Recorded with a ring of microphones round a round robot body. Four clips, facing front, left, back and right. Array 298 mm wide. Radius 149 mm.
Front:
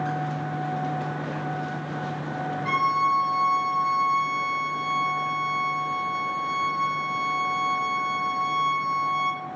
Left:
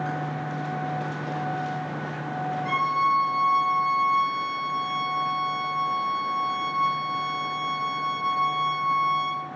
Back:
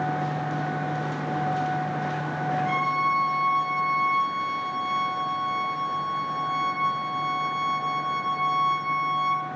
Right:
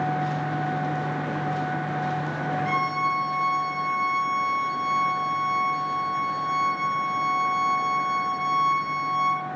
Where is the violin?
5° left, 6.5 m.